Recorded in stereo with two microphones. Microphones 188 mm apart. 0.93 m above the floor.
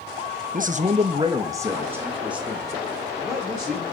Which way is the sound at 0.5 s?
45° right (ahead or behind).